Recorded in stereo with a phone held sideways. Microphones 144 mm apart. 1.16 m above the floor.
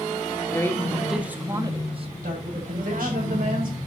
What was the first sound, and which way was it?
A man speaking, 20° left (ahead or behind).